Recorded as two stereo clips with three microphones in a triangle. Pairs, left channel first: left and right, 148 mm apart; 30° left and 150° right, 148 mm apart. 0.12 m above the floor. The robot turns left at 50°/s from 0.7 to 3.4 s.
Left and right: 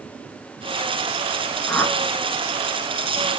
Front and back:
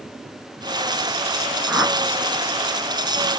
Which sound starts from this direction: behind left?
A whoosh, at 1.7 s.